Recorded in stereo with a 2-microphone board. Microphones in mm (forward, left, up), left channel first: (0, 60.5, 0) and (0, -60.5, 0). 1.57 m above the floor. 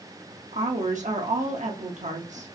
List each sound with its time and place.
0.5 s a woman speaking: 85° right, 0.8 m